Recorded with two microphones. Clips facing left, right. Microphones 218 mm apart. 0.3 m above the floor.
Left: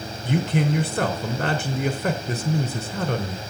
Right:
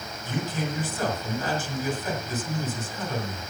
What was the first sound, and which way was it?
A man speaking, 70° left (ahead or behind).